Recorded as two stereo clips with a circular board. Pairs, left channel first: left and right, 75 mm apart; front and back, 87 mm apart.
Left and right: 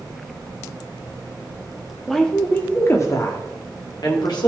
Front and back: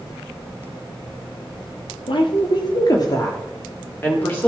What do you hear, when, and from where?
2.1 s a woman speaking: 5° left, 1.5 m; by 4.5 s 70° left, 2.5 m